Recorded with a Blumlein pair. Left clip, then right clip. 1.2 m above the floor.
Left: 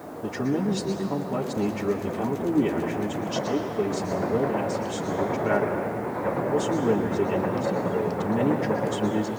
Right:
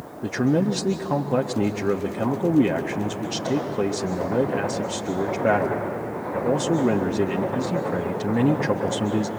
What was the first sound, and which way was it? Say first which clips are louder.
A man speaking: right 5 dB; 25° right.